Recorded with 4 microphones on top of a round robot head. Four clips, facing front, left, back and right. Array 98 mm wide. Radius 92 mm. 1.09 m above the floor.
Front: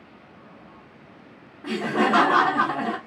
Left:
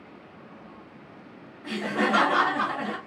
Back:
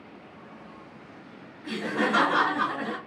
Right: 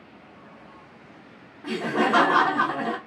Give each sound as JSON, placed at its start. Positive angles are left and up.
{"t": 1.6, "sound": "laughter", "azimuth_deg": -40, "distance_m": 0.9}